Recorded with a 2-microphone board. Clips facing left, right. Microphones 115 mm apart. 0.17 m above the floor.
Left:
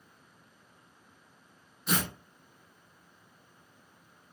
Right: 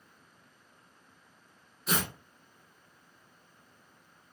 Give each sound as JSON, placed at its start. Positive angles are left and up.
{"t": 1.9, "sound": "tearing paper", "side_deg": -5, "distance_m": 1.1}